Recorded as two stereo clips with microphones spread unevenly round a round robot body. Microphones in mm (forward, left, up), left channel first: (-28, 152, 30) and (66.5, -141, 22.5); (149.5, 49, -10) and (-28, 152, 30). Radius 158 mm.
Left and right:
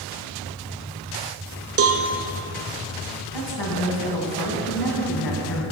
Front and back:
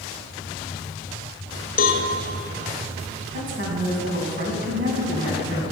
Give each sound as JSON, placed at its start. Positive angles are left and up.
{"t": 1.8, "sound": "a cowbell", "azimuth_deg": -45, "distance_m": 0.8}
{"t": 3.3, "sound": "a woman speaking", "azimuth_deg": 120, "distance_m": 2.5}